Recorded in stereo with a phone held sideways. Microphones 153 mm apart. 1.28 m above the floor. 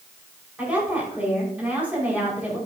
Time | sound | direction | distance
0.6 | a woman speaking | 10° right (ahead or behind) | 5.5 m